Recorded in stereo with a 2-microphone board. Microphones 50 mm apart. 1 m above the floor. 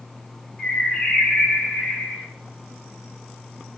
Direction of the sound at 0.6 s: 15° left (ahead or behind).